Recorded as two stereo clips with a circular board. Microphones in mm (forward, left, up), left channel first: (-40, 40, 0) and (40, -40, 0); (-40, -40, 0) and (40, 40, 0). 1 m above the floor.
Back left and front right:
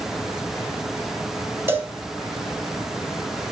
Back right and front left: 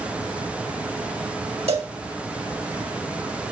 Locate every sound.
1.7 s a cowbell: 20° left, 2.0 m